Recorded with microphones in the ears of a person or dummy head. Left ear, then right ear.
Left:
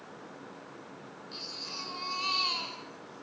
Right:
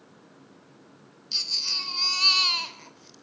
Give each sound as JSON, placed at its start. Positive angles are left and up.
{"t": 1.3, "sound": "a baby crying", "side_deg": -60, "distance_m": 3.0}